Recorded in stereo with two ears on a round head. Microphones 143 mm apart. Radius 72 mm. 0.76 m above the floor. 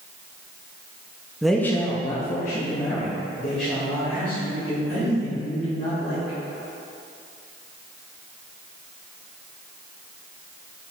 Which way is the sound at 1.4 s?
5° right (ahead or behind).